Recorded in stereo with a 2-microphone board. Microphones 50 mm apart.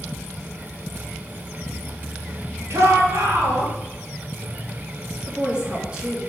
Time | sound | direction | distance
2.7 | a shout | 60° right (ahead or behind) | 3.5 m
5.3 | a woman speaking | 20° right (ahead or behind) | 4 m